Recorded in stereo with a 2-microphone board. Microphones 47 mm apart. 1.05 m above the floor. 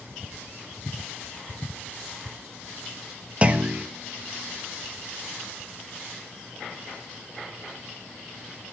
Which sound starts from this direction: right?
A clunk, at 3.4 s.